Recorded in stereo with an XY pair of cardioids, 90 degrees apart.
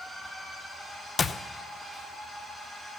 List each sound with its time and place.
0.0 s a machine running: 10° right, 7.5 m
1.2 s a clap: 35° left, 0.7 m